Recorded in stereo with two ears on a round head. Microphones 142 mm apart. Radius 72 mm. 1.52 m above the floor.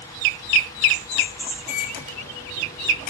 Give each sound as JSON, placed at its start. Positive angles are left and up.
{"t": 1.7, "sound": "a microwave", "side_deg": 60, "distance_m": 7.0}